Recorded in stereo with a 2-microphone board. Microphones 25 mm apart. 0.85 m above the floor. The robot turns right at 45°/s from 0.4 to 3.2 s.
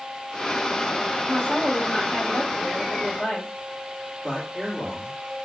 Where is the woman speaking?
40° left, 2.5 m; by 3.5 s 130° left, 2.5 m.